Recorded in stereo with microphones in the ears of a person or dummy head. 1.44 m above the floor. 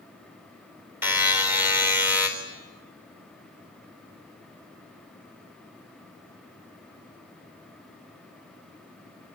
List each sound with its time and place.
1.0 s a buzzer: 20° right (ahead or behind), 4 m